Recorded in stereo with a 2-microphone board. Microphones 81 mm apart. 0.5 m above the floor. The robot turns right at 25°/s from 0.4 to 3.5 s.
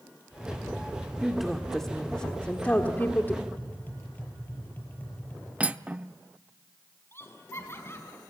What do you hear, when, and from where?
1.2 s a woman speaking: 10° right, 1.4 m; by 3.4 s 45° left, 1.4 m
3.5 s tapping: 20° left (ahead or behind), 7 m
5.6 s cutlery clinking: 15° right (ahead or behind), 0.7 m
7.1 s laughter: 30° left (ahead or behind), 5.5 m